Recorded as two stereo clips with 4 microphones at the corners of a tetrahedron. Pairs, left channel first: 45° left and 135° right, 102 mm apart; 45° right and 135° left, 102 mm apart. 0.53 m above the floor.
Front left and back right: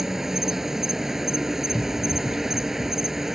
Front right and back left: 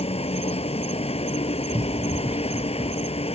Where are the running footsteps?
115° left; by 3.2 s 50° left.